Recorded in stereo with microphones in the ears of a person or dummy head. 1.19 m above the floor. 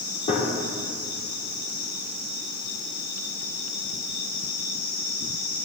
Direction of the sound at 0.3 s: 40° left (ahead or behind).